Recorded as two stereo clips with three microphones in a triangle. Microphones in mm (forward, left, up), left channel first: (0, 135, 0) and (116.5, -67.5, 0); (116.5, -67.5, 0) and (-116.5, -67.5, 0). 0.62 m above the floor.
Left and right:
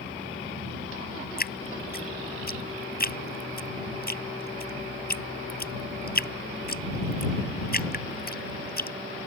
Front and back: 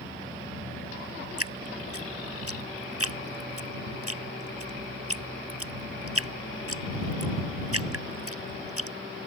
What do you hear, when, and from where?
1.4 s dripping: 170° left